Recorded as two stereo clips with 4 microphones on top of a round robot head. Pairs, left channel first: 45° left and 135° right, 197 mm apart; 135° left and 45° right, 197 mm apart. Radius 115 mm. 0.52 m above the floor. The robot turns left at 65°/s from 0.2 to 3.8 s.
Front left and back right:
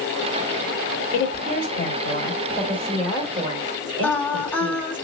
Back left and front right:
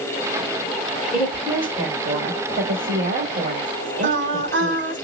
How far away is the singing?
About 0.9 m.